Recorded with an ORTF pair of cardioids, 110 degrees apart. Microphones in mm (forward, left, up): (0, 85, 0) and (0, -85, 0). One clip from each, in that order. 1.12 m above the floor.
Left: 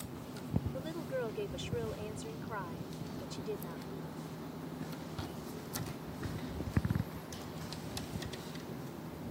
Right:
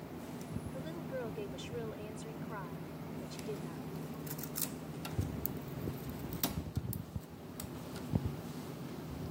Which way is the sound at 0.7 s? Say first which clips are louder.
Left 3 dB; 25° left.